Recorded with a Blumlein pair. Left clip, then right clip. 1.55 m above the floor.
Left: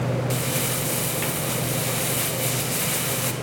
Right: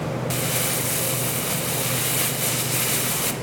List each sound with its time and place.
0.3 s crumpling: 10° right, 0.9 m